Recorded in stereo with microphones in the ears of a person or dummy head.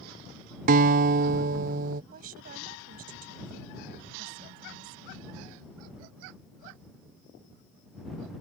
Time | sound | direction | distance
0.7 | a guitar | 45° right (ahead or behind) | ?
2.1 | a woman speaking | 50° right (ahead or behind) | ?